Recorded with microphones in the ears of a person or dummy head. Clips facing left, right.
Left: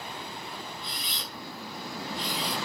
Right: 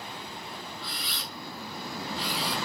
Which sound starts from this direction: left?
A camera shutter, at 0.8 s.